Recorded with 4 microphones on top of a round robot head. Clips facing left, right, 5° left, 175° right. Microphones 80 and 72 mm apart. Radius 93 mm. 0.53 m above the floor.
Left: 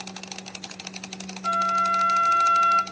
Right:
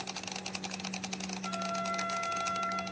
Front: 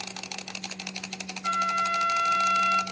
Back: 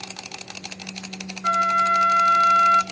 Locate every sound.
1.4 s a flute: 130° left, 0.9 m